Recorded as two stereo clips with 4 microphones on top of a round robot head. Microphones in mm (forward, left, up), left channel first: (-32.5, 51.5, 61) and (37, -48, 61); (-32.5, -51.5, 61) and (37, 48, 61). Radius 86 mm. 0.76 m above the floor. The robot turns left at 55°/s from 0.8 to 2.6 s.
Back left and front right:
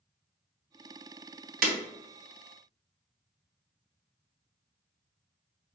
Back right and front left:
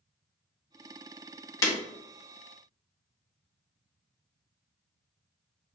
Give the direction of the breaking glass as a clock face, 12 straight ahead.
2 o'clock.